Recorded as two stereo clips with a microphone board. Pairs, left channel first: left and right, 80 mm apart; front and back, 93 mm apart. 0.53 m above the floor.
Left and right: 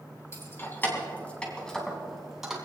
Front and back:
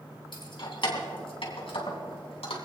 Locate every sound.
0.3 s keys jangling: 35° left, 3 m; by 2.6 s 10° right, 3 m